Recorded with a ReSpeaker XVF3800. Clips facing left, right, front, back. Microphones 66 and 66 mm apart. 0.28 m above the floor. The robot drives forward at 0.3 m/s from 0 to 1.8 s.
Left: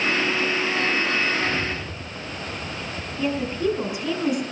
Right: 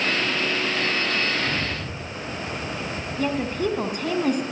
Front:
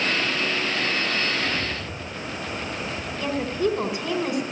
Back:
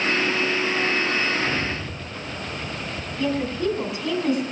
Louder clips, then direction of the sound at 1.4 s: Left 1 dB, back 2 dB; 130° right.